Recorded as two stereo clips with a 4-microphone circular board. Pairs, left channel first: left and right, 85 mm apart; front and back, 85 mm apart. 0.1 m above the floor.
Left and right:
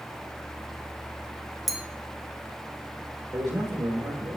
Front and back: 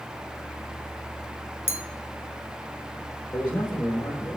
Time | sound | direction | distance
1.7 | a clink | 5° right | 0.8 m
3.3 | a man speaking | 60° right | 2.5 m